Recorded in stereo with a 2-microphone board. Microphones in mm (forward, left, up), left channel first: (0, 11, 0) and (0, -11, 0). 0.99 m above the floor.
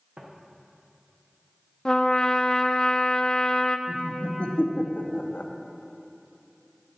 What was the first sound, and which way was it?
Footsteps, 60° right (ahead or behind).